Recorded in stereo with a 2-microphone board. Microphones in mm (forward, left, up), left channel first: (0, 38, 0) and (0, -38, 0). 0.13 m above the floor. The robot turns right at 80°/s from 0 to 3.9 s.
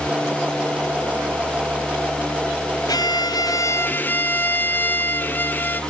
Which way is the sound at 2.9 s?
70° left.